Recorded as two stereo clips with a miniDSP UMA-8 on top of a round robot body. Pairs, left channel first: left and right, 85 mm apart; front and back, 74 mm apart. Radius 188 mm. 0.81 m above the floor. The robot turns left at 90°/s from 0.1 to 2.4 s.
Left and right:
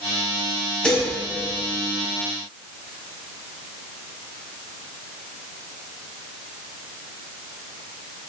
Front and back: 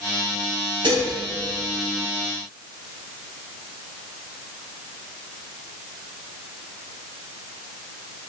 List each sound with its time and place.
0.8 s dishes clattering: 175° left, 4.5 m; by 1.1 s 155° left, 4.5 m